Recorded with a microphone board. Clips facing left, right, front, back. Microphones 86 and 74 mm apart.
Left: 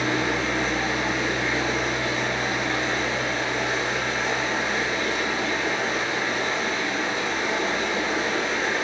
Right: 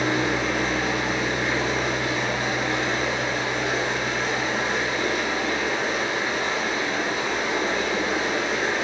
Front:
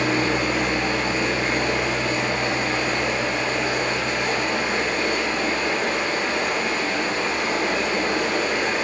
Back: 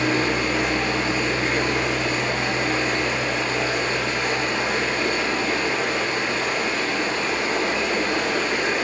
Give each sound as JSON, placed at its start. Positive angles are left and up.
{"t": 0.0, "sound": "running water", "azimuth_deg": -15, "distance_m": 1.2}